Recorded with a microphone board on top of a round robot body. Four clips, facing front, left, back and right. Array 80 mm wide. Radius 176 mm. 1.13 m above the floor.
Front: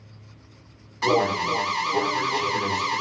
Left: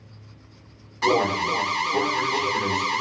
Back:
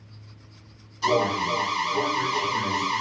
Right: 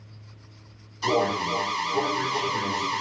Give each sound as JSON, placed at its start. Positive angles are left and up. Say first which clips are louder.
{"t": 1.0, "sound": "an alarm", "louder": "left 3 dB, front 1 dB", "azimuth_deg": 45, "distance_m": 2.0}